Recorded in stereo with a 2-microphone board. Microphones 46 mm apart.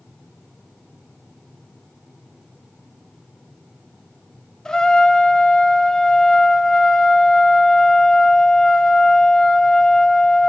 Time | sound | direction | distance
4.7 | a trumpet | 15° left (ahead or behind) | 1.8 m